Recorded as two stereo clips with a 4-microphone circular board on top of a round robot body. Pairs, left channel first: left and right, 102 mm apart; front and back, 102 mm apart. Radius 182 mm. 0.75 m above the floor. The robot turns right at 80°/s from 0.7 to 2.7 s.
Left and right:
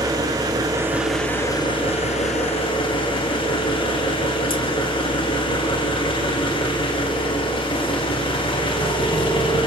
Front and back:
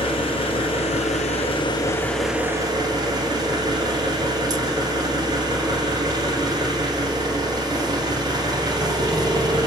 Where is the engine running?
30° right, 2.5 m; by 9.7 s 130° left, 2.5 m.